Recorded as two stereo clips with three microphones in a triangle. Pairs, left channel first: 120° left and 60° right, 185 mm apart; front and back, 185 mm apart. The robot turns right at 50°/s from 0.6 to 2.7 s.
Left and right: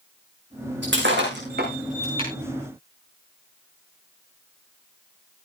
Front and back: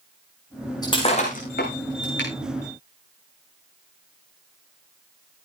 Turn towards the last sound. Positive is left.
turn(degrees=25)